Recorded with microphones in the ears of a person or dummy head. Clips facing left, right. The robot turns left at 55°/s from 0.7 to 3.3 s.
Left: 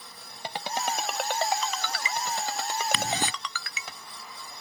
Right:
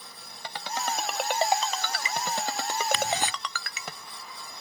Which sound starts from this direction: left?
Ticking, at 2.9 s.